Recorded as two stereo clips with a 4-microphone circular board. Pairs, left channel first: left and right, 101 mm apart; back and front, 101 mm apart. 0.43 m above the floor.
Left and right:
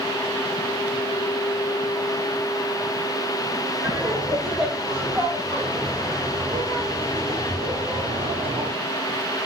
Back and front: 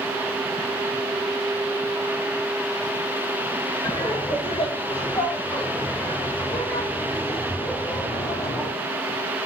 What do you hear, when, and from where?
3.8 s laughter: straight behind, 2.5 m; by 8.7 s 120° right, 3.5 m